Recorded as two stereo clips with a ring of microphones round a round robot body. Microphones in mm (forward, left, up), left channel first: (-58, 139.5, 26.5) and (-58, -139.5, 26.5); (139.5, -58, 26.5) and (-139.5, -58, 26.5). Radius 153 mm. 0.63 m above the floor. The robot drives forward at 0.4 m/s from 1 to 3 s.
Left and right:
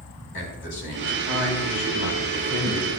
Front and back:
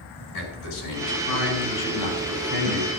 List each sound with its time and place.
0.3 s a man speaking: 35° left, 4.5 m; by 2.9 s 45° left, 4 m